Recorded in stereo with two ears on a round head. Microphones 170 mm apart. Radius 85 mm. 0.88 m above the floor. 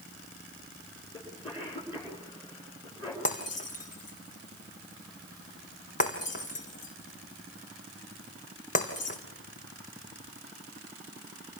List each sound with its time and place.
1.1 s a cough: 25° left (ahead or behind), 9.5 m
3.2 s breaking glass: 40° left (ahead or behind), 3.5 m